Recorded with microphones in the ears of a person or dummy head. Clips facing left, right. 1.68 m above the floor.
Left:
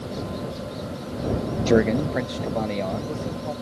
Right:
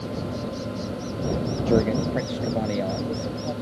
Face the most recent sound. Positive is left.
turn(degrees=-10)  # may be behind; listen again after turning